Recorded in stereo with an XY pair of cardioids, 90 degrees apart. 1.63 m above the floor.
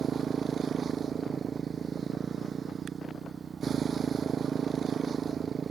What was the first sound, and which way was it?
A motorcycle, 50° right.